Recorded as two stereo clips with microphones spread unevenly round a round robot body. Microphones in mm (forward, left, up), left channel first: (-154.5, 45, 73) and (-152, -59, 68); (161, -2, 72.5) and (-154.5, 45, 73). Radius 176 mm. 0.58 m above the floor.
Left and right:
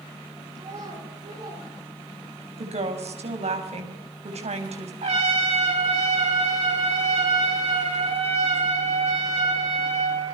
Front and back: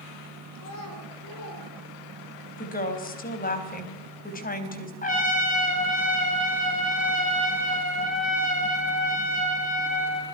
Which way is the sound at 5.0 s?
75° right.